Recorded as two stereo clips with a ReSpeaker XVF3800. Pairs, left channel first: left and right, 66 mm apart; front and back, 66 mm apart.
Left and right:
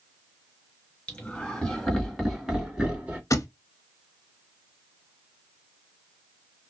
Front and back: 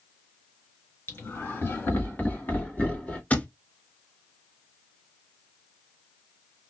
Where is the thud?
65° left, 0.5 m.